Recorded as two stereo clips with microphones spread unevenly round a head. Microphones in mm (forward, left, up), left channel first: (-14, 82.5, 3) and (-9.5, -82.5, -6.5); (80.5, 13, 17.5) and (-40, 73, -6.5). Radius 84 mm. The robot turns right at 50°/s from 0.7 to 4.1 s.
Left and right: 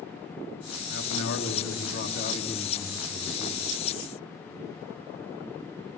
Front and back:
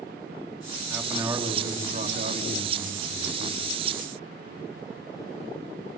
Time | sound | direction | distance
0.9 | a man speaking | 65° left | 4.5 m